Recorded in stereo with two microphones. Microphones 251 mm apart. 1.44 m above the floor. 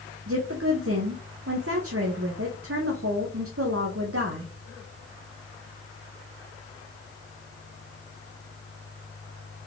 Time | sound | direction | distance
0.3 | a woman speaking | 60° right (ahead or behind) | 0.8 m